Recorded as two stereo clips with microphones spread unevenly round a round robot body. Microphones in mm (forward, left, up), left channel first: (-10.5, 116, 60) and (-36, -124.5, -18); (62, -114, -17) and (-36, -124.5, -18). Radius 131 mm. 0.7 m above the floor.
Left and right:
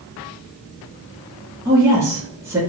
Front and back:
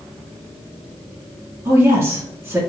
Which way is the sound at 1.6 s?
135° right.